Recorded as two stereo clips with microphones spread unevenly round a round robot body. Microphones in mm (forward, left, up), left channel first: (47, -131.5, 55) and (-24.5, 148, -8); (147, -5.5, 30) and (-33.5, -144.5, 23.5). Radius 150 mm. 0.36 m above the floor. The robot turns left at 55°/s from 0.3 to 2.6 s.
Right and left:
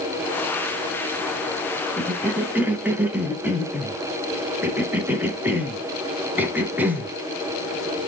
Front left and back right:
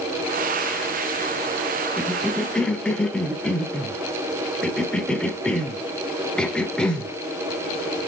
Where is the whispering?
No whispering in this recording.